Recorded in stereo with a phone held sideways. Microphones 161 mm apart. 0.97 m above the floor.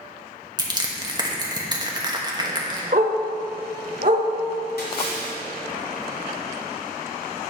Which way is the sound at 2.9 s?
55° right (ahead or behind).